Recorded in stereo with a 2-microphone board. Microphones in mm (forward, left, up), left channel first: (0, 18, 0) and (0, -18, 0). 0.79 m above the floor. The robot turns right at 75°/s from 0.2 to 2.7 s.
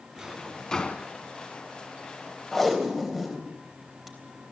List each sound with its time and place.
0.2 s a drawer: 20° right (ahead or behind), 2 m; by 1.1 s 45° left (ahead or behind), 2 m
2.5 s tape being pulled: 5° left (ahead or behind), 3.5 m; by 4.5 s 5° right (ahead or behind), 3.5 m